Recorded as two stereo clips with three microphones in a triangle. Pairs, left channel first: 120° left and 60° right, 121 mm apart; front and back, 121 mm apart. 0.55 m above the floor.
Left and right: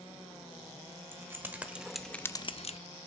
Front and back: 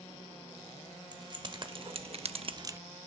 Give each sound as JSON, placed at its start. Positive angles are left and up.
{"t": 1.1, "sound": "keys jangling", "azimuth_deg": -130, "distance_m": 1.6}